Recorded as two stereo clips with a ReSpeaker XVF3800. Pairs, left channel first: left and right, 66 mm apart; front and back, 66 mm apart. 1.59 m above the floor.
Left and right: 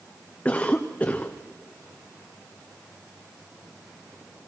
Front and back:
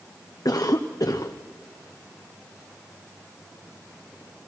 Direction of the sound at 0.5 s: 20° left.